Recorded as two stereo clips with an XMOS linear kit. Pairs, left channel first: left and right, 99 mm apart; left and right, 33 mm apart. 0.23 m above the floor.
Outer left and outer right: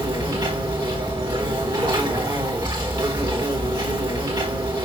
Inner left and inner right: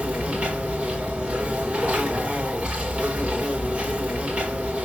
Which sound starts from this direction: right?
An insect, at 0.0 s.